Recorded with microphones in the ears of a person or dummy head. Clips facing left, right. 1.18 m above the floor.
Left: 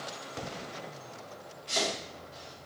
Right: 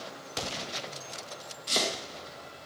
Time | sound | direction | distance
1.7 | chopping | 60° right (ahead or behind) | 0.8 m